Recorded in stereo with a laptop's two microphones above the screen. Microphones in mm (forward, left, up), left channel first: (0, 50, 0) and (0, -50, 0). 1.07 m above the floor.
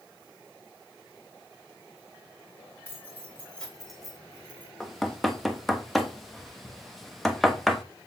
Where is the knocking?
Centre (ahead or behind), 1.1 m.